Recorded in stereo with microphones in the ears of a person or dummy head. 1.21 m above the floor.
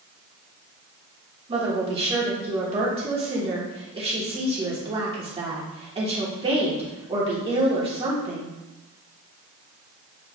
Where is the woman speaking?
25° right (ahead or behind), 1.1 m.